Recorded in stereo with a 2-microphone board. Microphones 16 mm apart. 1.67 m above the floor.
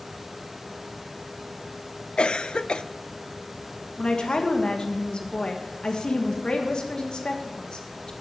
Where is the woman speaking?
60° left (ahead or behind), 1.6 m.